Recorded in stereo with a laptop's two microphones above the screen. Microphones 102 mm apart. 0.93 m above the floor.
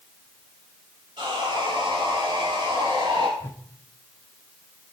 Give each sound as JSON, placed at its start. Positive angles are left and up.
{"t": 1.2, "sound": "sawing", "side_deg": -50, "distance_m": 10.0}
{"t": 3.4, "sound": "a whoosh", "side_deg": 20, "distance_m": 0.6}